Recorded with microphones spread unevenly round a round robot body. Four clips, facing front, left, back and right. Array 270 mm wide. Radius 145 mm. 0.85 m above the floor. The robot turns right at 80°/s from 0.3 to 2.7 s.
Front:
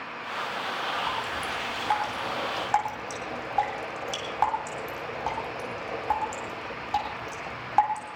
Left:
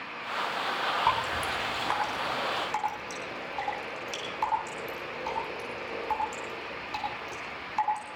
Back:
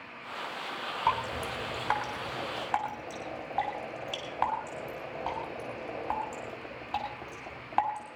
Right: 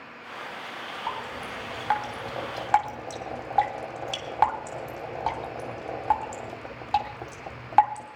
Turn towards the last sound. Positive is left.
turn(degrees=-70)